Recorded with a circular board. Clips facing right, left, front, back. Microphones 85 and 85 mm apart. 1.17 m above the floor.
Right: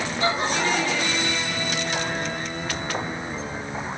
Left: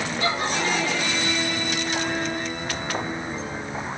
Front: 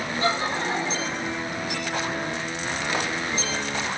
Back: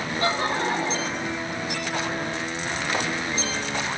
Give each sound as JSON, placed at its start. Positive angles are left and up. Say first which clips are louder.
{"t": 0.2, "sound": "laughter", "louder": "right 2 dB, back 1 dB", "azimuth_deg": -145, "distance_m": 5.5}